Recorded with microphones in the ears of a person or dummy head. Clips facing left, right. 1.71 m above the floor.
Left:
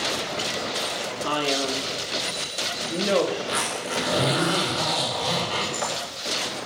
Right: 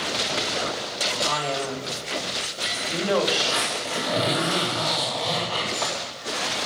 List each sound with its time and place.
1.2 s a man speaking: 50° left (ahead or behind), 4 m; by 3.2 s 30° left (ahead or behind), 3.5 m
3.4 s a zipper: 25° left (ahead or behind), 7 m